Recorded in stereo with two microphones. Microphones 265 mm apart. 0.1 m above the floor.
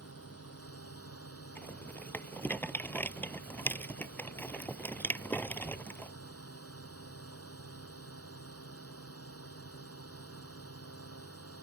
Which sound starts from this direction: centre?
A rattle, at 1.6 s.